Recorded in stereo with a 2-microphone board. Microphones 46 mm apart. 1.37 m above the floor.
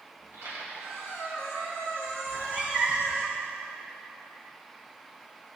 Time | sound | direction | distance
0.2 | a squeak | 75° right (ahead or behind) | 2.5 m
2.3 | a cat meowing | 30° right (ahead or behind) | 1.1 m